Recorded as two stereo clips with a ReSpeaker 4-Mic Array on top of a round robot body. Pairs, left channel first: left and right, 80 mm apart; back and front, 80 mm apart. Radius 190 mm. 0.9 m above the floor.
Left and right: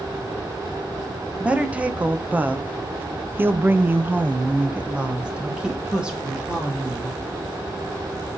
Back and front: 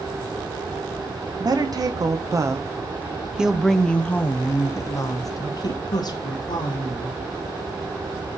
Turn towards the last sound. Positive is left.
turn(degrees=-175)